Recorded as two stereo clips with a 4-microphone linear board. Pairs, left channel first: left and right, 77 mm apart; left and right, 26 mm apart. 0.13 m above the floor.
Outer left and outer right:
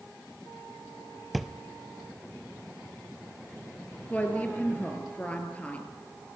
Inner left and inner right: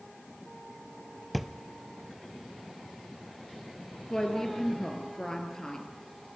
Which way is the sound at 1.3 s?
Centre (ahead or behind).